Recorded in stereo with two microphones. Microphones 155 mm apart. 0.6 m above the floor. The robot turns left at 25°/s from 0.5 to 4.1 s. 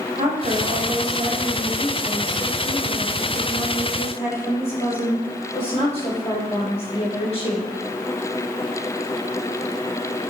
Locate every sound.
0.2 s a woman speaking: 135° right, 3 m; by 7.7 s 135° left, 3 m